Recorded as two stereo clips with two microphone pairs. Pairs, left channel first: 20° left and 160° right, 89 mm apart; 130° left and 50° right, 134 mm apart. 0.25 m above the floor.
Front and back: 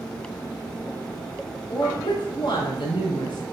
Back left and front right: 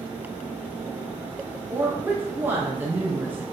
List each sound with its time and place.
1.7 s a woman speaking: 25° left, 3.5 m